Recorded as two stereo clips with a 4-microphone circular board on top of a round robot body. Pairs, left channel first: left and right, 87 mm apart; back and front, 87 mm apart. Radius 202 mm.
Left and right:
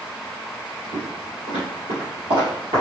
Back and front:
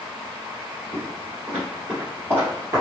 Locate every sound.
0.9 s footsteps: 105° right, 1.7 m; by 2.8 s 55° right, 1.6 m